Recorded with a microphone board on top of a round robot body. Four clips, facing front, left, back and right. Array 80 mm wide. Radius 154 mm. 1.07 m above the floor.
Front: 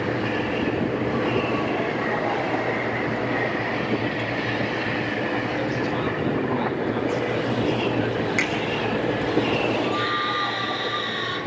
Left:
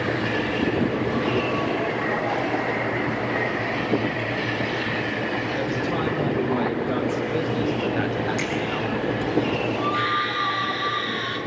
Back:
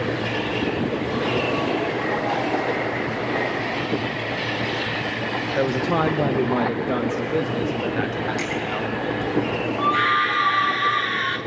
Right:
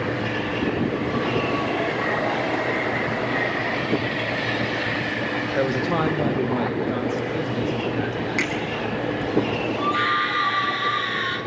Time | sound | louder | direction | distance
5.6 | a man speaking | right 6 dB, back 4 dB | 135° right | 1.2 m
8.4 | a finger snap | right 2 dB, front 2 dB | 35° right | 6 m
9.8 | a scream | right 1 dB, back 4 dB | 170° right | 2.5 m